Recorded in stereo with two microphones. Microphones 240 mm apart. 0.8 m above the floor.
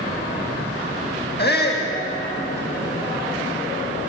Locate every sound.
1.4 s a shout: 45° left (ahead or behind), 1.2 m